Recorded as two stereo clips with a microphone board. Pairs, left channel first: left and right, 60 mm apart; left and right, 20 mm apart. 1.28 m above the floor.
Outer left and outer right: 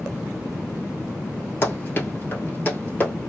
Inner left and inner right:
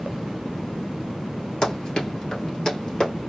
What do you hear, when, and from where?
1.6 s running footsteps: 40° left (ahead or behind), 1.6 m; by 3.1 s 30° left (ahead or behind), 1.9 m